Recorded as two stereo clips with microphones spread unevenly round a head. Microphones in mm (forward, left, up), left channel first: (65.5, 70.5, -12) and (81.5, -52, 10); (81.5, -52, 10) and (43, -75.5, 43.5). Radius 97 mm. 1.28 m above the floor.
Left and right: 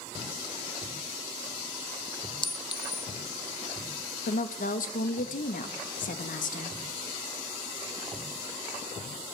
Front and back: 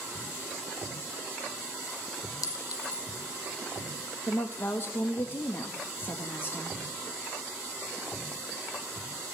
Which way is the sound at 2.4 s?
40° left.